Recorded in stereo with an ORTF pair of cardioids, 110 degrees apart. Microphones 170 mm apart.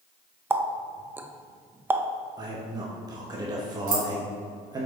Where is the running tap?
15° right, 0.5 m.